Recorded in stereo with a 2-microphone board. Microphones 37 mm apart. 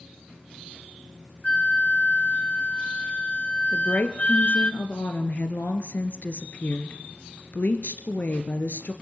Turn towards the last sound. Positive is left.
turn(degrees=50)  # may be behind; listen again after turning